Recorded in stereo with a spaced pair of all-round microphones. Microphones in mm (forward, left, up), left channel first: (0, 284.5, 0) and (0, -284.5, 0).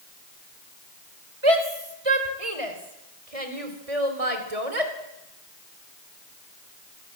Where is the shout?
60° right (ahead or behind), 5 m; by 4.9 s 85° right, 3.5 m.